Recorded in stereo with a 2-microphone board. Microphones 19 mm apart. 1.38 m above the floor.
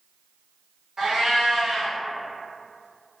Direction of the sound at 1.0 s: 40° right (ahead or behind).